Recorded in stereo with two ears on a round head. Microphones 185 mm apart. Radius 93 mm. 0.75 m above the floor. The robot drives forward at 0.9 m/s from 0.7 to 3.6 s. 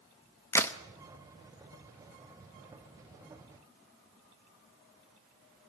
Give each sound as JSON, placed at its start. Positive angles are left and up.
{"t": 0.5, "sound": "a crack", "side_deg": 10, "distance_m": 0.9}